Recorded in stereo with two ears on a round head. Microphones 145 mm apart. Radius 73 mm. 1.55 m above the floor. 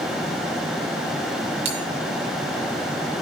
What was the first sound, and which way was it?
A bell, 35° right (ahead or behind).